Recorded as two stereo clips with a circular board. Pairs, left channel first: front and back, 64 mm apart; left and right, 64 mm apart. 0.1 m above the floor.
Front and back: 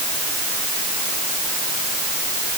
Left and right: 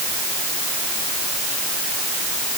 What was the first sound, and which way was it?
Only background noise.